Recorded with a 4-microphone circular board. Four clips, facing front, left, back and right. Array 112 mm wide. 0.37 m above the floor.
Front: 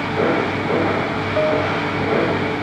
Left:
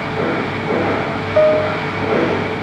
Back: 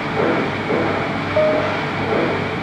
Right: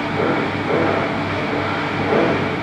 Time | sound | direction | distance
1.4 | a piano | 100° left | ?